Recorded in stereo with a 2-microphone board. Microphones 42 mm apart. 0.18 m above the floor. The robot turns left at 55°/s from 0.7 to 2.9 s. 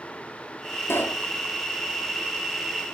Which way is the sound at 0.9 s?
75° left (ahead or behind).